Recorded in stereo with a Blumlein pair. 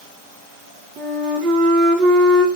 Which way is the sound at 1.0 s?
30° right.